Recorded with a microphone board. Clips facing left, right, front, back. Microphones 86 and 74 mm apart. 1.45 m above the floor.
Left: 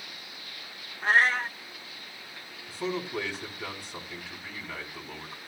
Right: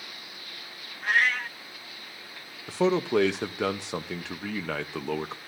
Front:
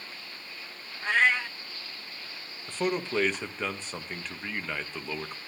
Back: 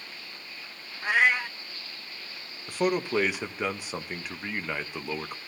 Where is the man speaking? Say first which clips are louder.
Right 9 dB, back 3 dB; 100° right, 0.8 m.